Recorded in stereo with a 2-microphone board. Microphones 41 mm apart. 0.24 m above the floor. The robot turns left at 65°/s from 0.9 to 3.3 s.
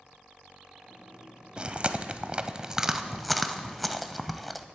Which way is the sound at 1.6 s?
25° right (ahead or behind).